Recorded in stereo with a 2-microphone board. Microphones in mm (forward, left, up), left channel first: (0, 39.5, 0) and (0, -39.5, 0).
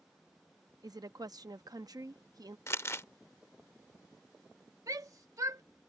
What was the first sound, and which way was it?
A woman speaking, 55° right (ahead or behind).